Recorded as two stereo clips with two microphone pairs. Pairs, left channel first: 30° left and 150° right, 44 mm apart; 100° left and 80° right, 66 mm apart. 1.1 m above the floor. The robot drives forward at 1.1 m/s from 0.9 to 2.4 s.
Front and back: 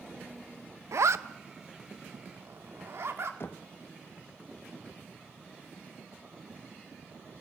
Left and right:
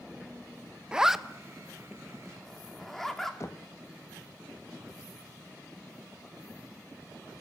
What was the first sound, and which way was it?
A zipper, 155° right.